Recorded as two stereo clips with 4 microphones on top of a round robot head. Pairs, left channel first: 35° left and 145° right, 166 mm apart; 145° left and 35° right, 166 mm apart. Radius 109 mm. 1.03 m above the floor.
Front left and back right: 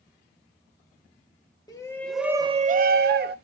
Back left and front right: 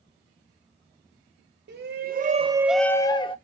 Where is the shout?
30° right, 0.9 m; by 3.4 s 160° right, 0.9 m.